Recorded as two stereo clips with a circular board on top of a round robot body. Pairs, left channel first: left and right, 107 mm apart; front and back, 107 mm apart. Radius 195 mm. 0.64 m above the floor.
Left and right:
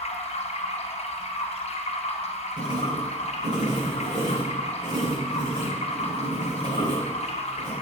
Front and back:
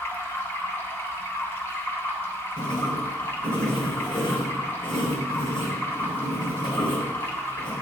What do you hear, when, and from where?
0.0 s running water: 70° left, 1.8 m
2.6 s writing: 45° right, 5 m